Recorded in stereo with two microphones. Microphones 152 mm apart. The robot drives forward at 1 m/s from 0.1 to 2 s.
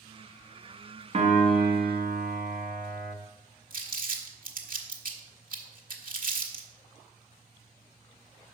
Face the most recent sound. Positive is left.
turn(degrees=-65)  # may be behind; listen again after turning